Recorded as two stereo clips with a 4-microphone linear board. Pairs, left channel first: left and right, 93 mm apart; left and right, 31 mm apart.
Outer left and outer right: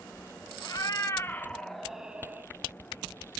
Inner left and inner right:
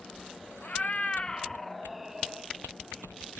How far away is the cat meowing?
About 0.7 m.